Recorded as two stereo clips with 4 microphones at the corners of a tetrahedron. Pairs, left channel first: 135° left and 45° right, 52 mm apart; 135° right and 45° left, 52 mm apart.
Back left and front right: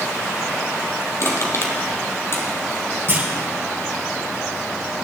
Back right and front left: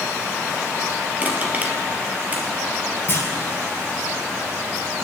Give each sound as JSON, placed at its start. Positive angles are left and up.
{"t": 1.2, "sound": "crushing", "azimuth_deg": 105, "distance_m": 2.5}
{"t": 3.1, "sound": "a clunk", "azimuth_deg": -95, "distance_m": 6.0}